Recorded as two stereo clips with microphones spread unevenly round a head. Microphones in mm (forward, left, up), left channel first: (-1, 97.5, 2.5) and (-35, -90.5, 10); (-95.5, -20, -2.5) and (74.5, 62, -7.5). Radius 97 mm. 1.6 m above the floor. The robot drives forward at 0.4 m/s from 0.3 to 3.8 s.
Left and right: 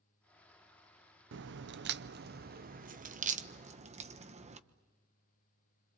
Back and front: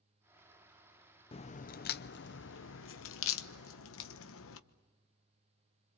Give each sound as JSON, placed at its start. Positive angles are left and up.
{"t": 1.3, "sound": "a crack", "azimuth_deg": -95, "distance_m": 0.6}